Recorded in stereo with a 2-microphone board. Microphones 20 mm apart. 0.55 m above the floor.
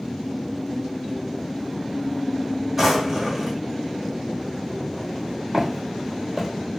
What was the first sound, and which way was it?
A drawer, 15° right (ahead or behind).